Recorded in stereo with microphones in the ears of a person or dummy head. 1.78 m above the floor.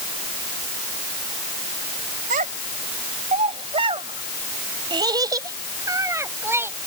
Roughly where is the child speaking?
Right.